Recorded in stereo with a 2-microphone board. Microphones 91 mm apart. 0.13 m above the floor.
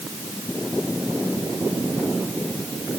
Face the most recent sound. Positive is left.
No sound to turn to.